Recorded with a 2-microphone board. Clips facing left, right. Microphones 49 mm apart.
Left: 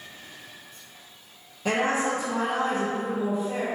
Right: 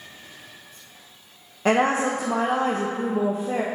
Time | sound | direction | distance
1.6 | a woman speaking | 55° right (ahead or behind) | 0.6 m